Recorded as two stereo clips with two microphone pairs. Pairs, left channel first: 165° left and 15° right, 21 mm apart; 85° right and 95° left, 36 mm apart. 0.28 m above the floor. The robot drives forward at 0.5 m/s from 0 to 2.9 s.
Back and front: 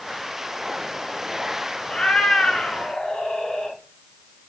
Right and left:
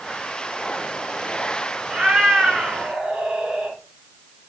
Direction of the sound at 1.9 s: 165° left.